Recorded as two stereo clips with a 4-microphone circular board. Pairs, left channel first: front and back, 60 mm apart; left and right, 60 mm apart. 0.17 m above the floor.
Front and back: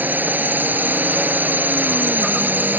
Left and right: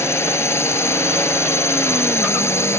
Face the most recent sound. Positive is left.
turn(degrees=125)